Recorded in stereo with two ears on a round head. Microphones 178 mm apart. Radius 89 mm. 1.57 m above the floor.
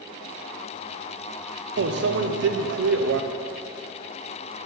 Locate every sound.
1.8 s a microwave: 65° right (ahead or behind), 0.6 m